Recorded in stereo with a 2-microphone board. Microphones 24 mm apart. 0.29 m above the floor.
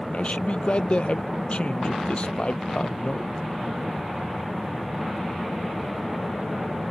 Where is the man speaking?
55° left (ahead or behind).